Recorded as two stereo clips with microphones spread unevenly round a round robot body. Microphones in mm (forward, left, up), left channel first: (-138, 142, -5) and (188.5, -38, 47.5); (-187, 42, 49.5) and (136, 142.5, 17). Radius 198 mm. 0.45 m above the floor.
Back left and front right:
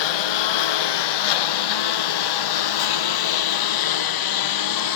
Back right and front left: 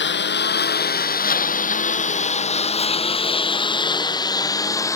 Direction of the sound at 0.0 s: 140° left.